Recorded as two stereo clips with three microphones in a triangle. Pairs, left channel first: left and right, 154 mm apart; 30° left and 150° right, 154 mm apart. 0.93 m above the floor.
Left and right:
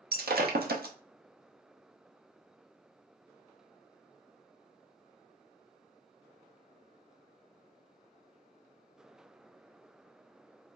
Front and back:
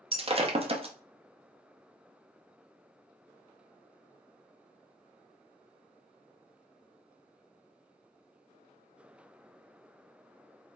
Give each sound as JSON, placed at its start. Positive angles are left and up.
{"t": 0.1, "sound": "breaking glass", "azimuth_deg": -95, "distance_m": 0.7}